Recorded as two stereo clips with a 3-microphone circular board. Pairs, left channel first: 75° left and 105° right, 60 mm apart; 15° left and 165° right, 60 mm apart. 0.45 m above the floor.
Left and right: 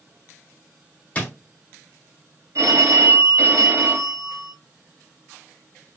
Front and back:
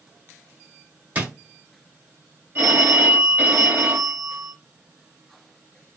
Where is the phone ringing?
125° right, 0.9 m.